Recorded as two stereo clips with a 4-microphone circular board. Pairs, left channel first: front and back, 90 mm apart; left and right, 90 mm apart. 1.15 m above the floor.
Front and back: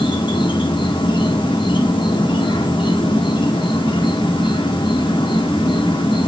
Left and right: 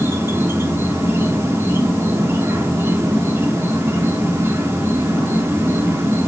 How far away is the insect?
About 1.0 m.